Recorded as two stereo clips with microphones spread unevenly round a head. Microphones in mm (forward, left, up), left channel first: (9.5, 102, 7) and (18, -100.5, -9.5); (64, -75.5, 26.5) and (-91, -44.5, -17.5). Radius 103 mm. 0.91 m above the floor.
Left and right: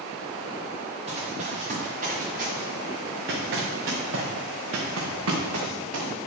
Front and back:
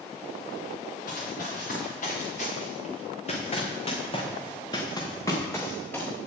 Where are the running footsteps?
30° right, 4 m; by 6.1 s 85° right, 3.5 m.